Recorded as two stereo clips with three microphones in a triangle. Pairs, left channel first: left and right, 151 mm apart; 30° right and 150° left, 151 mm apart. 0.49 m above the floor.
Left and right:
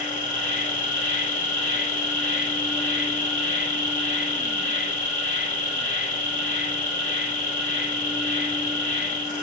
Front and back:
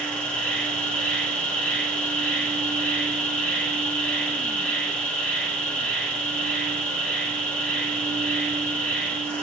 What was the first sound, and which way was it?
An insect, 55° left.